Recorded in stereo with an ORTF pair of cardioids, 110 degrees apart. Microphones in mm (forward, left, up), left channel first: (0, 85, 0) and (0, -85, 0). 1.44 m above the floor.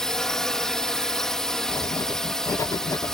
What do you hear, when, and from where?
0.0 s a drone: 5° left
1.7 s writing: 20° left